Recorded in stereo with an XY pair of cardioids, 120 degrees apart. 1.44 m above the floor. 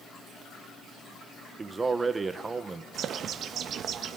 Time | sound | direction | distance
1.6 | a man speaking | 25° right | 1.3 m
2.9 | a bird | 55° right | 1.3 m